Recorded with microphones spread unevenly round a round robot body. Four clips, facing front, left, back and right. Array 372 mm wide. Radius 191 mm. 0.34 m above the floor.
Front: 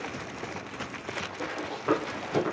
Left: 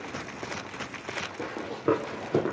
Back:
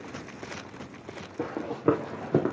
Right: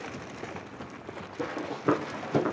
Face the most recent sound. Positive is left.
turn(degrees=170)